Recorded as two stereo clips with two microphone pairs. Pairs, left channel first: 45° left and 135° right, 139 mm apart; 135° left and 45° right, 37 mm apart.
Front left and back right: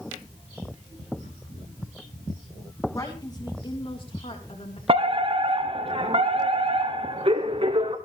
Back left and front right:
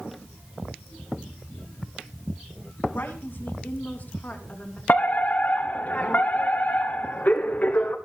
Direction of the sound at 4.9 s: Straight behind.